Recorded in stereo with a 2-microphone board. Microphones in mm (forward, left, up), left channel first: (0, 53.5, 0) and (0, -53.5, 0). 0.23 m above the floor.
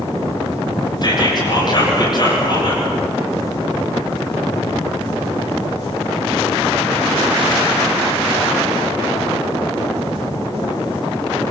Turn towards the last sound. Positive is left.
turn(degrees=40)  # may be behind; listen again after turning